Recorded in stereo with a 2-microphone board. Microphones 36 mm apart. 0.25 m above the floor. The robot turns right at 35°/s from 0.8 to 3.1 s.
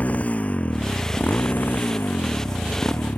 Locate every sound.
0.0 s a motorcycle: 40° left (ahead or behind); by 3.2 s 70° left (ahead or behind)